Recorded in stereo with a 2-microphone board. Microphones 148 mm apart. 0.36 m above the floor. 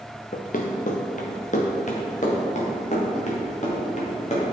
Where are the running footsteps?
60° left (ahead or behind), 1.3 m; by 4.5 s 50° left (ahead or behind), 3.5 m.